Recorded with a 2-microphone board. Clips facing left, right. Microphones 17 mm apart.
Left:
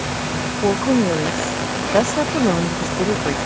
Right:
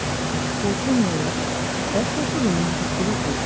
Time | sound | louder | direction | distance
0.6 | a woman speaking | left 5 dB | 65° left (ahead or behind) | ?